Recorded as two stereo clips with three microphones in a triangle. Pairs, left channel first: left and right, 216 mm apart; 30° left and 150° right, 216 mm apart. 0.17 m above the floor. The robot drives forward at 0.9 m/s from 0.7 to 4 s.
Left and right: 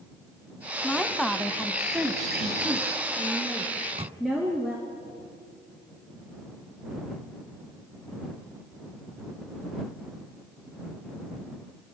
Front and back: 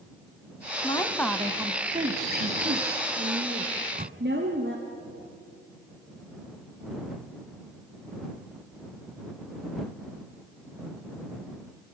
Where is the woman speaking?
Straight ahead, 1.1 m; by 4.8 s straight behind, 2.5 m.